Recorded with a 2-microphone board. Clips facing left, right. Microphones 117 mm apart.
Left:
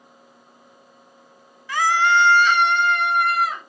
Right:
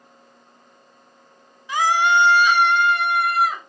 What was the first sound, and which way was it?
A scream, 20° right (ahead or behind).